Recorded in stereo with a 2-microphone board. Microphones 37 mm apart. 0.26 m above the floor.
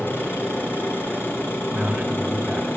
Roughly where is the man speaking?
Right.